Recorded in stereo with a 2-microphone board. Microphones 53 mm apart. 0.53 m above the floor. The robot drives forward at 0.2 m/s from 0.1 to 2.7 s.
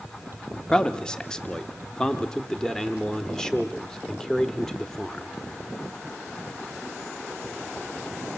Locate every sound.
0.7 s a man speaking: 15° left (ahead or behind), 0.8 m; by 5.3 s 10° left (ahead or behind), 1.1 m